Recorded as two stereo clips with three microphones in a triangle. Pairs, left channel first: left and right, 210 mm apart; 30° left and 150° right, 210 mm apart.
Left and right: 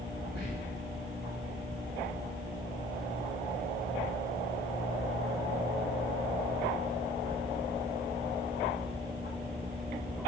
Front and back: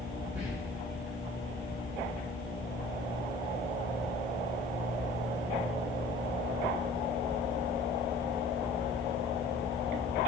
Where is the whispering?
125° left, 1.5 m.